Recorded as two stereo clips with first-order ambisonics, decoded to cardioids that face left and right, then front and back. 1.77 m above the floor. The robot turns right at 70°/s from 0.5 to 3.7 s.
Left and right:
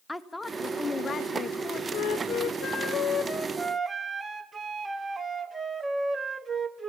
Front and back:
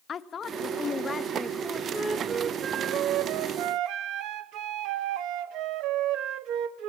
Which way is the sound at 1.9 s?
75° left.